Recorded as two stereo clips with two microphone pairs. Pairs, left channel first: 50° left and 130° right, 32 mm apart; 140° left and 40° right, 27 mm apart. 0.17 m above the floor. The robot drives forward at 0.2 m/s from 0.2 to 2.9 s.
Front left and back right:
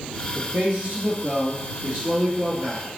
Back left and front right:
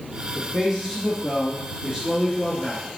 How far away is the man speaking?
About 3 m.